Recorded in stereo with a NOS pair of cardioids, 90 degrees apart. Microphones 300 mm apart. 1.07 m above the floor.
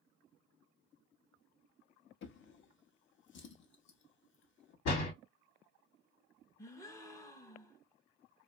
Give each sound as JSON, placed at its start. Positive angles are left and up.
{"t": 2.2, "sound": "a drawer", "azimuth_deg": 45, "distance_m": 0.7}
{"t": 4.8, "sound": "a door slam", "azimuth_deg": 65, "distance_m": 1.3}
{"t": 6.6, "sound": "a gasp", "azimuth_deg": 10, "distance_m": 0.7}